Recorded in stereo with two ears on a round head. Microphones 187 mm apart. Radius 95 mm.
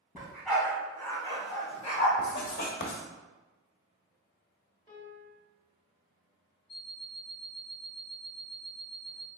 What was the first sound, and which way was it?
A dog barking, 10° right (ahead or behind).